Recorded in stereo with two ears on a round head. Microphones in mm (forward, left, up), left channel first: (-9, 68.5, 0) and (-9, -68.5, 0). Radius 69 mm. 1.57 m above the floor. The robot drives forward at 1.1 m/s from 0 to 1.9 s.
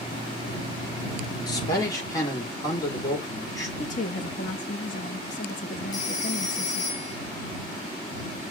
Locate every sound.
1.5 s a man speaking: 25° left (ahead or behind), 3.5 m
3.8 s a woman speaking: 55° left (ahead or behind), 1.6 m
5.9 s a phone ringing: 55° left (ahead or behind), 2 m